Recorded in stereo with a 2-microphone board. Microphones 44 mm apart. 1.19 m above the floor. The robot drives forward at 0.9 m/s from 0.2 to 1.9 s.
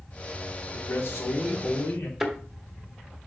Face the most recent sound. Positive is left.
turn(degrees=0)  # may be behind; listen again after turning